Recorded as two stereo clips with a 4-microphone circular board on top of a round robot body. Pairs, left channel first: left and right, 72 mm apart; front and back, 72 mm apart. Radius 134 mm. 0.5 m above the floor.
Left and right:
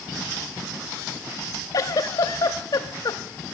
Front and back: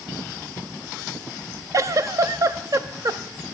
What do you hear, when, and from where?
1.7 s a giggle: 135° left, 0.6 m